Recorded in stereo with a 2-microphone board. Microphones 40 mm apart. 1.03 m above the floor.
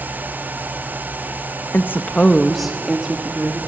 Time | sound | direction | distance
1.7 | a woman speaking | 65° left (ahead or behind) | 0.9 m